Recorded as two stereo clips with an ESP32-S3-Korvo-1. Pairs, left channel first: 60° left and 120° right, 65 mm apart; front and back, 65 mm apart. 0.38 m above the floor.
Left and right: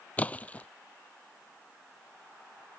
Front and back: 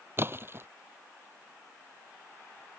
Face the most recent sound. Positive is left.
turn(degrees=130)